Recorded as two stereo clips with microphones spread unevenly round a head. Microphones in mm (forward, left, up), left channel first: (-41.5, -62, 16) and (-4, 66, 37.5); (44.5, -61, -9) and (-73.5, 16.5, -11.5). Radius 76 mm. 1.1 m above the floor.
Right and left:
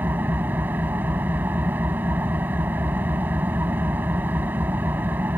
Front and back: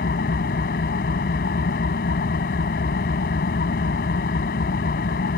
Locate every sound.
0.0 s an engine running: 5° right